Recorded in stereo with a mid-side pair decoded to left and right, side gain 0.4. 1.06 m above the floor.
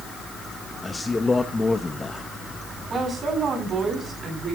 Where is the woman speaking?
45° right, 9.5 m.